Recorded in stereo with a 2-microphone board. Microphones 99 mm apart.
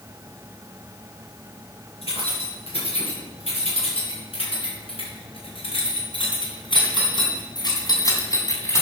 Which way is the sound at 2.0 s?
85° left.